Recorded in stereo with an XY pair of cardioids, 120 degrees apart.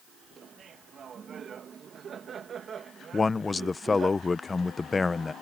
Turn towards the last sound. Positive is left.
turn(degrees=25)